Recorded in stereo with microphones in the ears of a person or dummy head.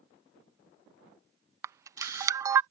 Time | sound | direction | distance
1.6 | a camera shutter | 15° right (ahead or behind) | ?